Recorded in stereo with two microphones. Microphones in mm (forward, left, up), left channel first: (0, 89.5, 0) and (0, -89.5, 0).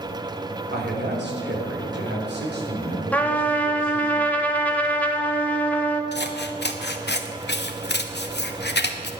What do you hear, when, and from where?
0.7 s a man speaking: 60° right (ahead or behind), 3 m; by 4.1 s 45° right (ahead or behind), 5 m
3.1 s a trumpet: 10° left (ahead or behind), 1.2 m
6.1 s scissors: 65° left (ahead or behind), 1.0 m